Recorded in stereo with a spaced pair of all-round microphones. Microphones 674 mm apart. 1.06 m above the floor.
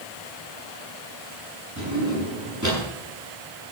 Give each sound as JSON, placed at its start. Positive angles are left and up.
{"t": 1.8, "sound": "a drawer", "side_deg": -25, "distance_m": 9.5}